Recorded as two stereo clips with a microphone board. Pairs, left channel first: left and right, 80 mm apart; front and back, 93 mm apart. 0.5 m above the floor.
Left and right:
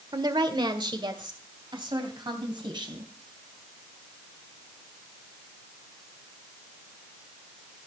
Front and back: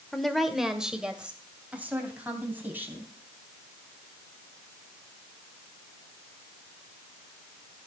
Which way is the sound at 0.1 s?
85° right.